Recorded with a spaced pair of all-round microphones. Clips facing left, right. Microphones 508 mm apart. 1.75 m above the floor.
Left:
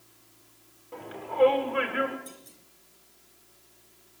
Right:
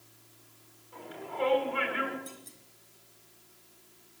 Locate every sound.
0.9 s a shout: 75° left (ahead or behind), 6.5 m; by 2.2 s 65° left (ahead or behind), 7 m
2.3 s a clunk: centre (ahead or behind), 3.5 m